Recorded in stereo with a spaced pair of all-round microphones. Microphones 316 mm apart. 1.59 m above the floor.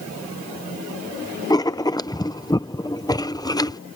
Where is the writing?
15° left (ahead or behind).